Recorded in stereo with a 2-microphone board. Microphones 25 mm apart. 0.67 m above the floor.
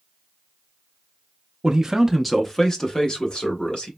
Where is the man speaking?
25° right (ahead or behind), 0.5 m; by 3.9 s 45° left (ahead or behind), 1.2 m.